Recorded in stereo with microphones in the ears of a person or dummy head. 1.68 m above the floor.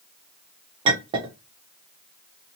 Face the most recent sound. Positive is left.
turn(degrees=-30)  # may be behind; listen again after turning